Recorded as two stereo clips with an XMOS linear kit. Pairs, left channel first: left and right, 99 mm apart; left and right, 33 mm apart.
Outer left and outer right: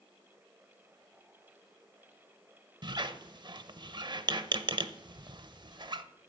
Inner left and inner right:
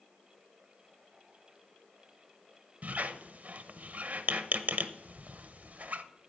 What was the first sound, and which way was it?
A squeak, 50° right (ahead or behind).